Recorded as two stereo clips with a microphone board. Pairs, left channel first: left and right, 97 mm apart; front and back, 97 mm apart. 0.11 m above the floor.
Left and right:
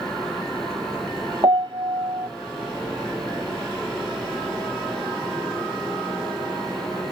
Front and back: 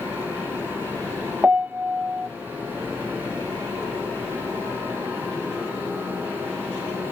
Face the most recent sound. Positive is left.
turn(degrees=-110)